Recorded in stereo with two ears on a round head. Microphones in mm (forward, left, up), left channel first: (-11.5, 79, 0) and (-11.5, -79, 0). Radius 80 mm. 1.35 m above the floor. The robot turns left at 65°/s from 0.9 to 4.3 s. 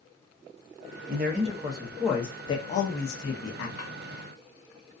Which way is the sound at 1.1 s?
115° right.